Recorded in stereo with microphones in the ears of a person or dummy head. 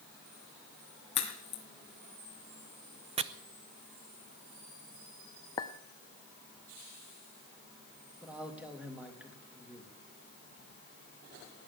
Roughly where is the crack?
Left.